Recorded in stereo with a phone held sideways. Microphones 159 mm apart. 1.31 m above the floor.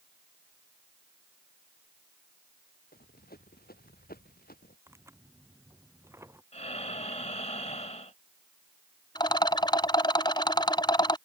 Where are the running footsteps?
75° left (ahead or behind); by 4.8 s 70° left (ahead or behind).